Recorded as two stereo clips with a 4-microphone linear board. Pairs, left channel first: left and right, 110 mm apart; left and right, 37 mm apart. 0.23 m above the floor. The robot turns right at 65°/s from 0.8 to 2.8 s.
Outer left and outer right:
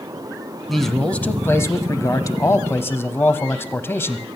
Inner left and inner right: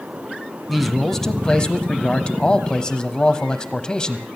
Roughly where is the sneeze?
I don't hear a sneeze.